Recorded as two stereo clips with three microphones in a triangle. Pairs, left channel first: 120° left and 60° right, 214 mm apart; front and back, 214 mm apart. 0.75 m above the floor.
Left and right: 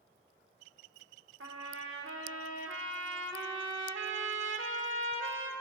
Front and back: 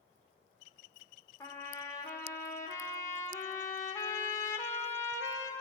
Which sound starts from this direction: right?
A trumpet, at 1.4 s.